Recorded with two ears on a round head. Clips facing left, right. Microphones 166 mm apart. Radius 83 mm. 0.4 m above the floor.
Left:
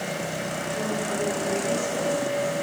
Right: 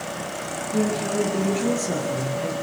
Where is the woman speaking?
75° right (ahead or behind), 7 m; by 2.5 s 80° right, 7.5 m.